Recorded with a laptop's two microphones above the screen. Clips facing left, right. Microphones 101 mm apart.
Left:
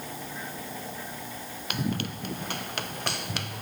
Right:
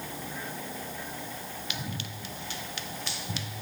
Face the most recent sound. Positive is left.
turn(degrees=60)  # may be behind; listen again after turning